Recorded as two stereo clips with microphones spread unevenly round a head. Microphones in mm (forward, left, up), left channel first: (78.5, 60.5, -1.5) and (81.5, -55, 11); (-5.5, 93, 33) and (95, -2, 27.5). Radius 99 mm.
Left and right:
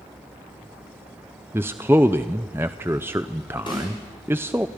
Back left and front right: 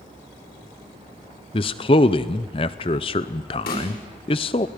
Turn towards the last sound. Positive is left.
turn(degrees=160)